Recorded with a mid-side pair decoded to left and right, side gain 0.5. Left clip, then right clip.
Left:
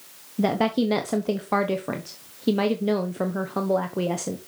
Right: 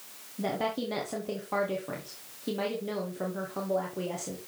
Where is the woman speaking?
55° left, 1.0 m.